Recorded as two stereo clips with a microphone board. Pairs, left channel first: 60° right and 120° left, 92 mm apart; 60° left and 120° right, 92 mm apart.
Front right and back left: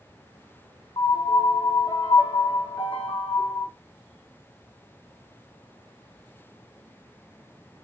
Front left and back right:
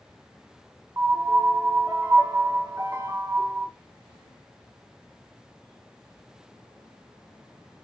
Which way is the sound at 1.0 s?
65° right.